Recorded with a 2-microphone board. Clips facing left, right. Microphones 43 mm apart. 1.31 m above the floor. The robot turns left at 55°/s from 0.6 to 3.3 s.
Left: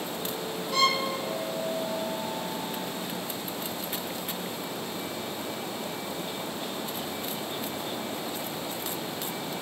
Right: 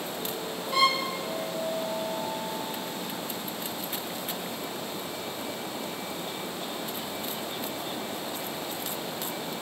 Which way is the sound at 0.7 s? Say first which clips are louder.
Right 1 dB; 15° right (ahead or behind).